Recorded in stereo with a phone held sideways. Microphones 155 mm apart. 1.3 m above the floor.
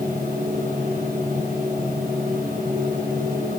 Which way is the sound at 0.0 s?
65° right (ahead or behind).